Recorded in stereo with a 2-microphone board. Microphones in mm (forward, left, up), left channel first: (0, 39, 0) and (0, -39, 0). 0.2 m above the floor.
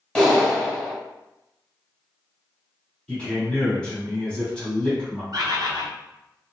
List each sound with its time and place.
0.1 s a clap: 10° left (ahead or behind), 1.2 m
3.1 s a man speaking: 10° left (ahead or behind), 1.6 m
5.3 s a bird: 55° right (ahead or behind), 0.6 m